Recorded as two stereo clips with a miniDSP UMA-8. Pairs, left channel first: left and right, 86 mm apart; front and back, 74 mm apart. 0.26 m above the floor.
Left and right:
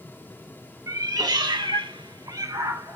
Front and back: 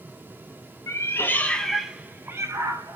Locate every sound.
0.9 s a cat meowing: 45° right, 0.6 m; by 3.0 s 145° right, 0.8 m